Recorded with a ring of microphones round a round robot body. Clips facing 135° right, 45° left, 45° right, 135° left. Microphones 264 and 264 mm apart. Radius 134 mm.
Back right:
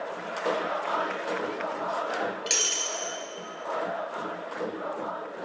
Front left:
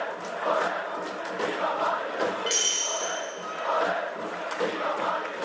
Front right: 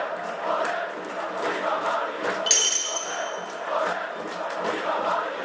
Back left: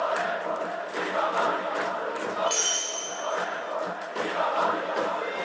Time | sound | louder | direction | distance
2.5 | breaking glass | front left 2 dB, back left 1 dB | 70° right | 2 m